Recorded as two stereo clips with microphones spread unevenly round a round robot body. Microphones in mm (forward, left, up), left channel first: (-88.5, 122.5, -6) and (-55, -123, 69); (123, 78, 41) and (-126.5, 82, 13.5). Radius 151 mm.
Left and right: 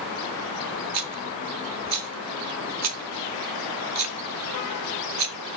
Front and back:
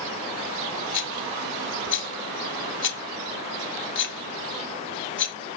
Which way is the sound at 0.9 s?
45° right.